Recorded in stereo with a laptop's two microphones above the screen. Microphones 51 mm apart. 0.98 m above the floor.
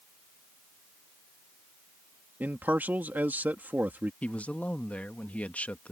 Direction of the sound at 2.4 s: 35° right (ahead or behind).